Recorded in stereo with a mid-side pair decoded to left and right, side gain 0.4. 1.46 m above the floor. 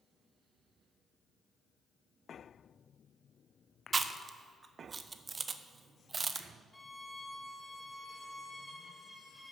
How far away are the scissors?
No scissors in this recording.